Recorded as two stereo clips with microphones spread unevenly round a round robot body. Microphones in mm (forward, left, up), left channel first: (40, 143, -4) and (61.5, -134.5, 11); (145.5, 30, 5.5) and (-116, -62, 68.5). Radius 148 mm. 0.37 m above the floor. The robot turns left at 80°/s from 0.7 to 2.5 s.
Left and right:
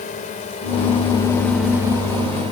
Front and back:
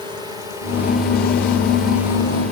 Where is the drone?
115° left; by 2.5 s 110° right.